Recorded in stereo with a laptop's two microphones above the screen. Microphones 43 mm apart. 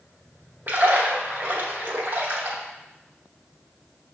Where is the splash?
50° right (ahead or behind), 1.0 m.